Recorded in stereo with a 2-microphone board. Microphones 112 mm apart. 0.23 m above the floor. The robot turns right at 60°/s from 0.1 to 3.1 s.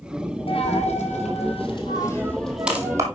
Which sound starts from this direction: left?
A dropped coin, at 0.5 s.